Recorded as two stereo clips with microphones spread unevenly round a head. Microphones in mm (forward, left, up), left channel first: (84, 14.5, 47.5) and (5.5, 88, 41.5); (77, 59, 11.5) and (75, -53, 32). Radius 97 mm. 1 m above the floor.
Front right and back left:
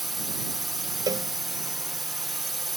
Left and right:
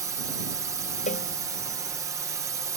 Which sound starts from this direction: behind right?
A drone, at 0.0 s.